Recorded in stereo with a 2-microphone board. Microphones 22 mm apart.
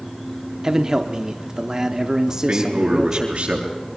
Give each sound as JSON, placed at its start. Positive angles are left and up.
{"t": 0.6, "sound": "a man speaking", "side_deg": -25, "distance_m": 1.2}
{"t": 2.3, "sound": "a man speaking", "side_deg": -60, "distance_m": 6.5}